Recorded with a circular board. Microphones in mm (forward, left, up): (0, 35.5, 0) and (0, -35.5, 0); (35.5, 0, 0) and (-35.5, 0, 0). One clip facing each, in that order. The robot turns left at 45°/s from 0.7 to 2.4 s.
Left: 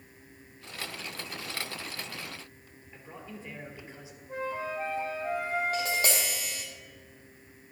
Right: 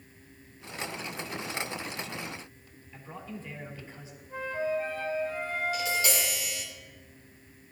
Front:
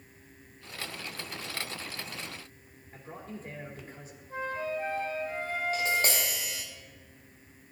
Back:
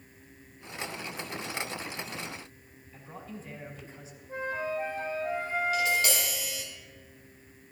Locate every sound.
2.9 s a man speaking: 20° left, 3.5 m
4.3 s a flute: 115° left, 3 m
5.7 s tapping: 50° left, 3.5 m